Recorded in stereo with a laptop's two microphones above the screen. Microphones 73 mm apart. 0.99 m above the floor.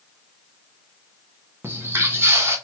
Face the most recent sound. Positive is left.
turn(degrees=-35)  # may be behind; listen again after turning